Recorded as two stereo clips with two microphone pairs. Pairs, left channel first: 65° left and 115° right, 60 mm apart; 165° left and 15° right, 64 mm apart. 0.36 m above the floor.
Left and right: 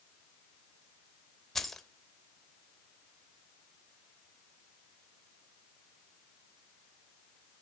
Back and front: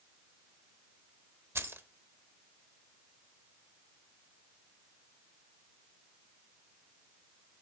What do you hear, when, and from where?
1.6 s keys jangling: 15° right, 0.7 m